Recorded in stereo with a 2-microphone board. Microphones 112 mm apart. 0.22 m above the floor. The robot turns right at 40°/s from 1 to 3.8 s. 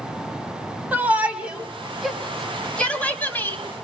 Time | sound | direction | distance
0.9 | a shout | 15° right (ahead or behind) | 1.7 m